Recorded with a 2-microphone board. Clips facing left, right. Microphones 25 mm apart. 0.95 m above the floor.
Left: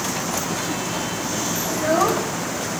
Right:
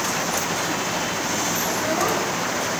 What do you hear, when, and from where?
1.7 s a child speaking: 50° left (ahead or behind), 1.2 m